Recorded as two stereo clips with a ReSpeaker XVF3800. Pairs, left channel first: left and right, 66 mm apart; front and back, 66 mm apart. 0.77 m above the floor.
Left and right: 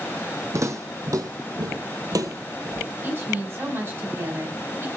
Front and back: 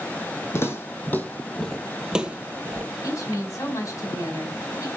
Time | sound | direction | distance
0.5 | footsteps | 50° right | 2 m
3.0 | a woman speaking | 35° right | 4.5 m